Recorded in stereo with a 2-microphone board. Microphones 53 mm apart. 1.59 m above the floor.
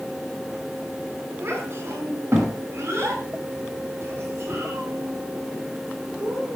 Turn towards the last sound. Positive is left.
turn(degrees=-50)  # may be behind; listen again after turning